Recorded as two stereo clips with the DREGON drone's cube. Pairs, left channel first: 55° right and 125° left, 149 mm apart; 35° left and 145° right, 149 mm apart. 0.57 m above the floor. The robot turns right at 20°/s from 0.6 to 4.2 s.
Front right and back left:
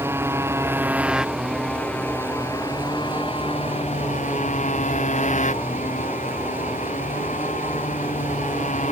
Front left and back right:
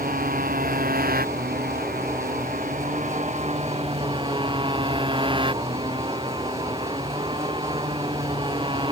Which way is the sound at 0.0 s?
160° right.